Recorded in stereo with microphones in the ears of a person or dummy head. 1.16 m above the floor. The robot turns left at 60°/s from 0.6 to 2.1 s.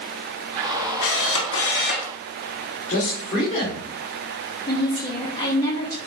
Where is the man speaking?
45° left (ahead or behind), 2 m.